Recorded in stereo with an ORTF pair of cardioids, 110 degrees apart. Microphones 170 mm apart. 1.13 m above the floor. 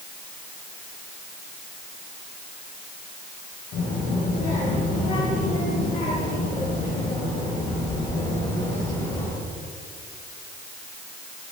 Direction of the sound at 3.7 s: 60° left.